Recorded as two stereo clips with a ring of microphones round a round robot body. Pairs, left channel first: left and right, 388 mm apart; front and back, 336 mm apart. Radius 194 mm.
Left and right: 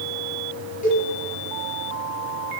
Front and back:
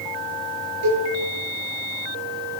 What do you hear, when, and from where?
0.8 s a cowbell: 160° left, 5 m